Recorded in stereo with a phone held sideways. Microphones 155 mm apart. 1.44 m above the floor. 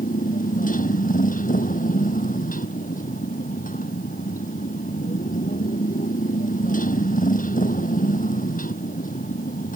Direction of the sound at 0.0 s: 60° left (ahead or behind).